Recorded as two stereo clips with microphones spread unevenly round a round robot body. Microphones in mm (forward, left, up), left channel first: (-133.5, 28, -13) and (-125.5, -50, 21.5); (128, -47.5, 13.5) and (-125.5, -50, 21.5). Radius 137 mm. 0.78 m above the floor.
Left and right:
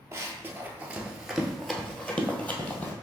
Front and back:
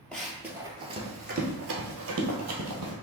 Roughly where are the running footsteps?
Right.